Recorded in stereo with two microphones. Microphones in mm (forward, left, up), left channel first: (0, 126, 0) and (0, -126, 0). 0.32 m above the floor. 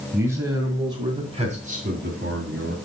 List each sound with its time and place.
0.1 s a man speaking: 5° right (ahead or behind), 3.5 m; by 2.8 s 50° right (ahead or behind), 2.5 m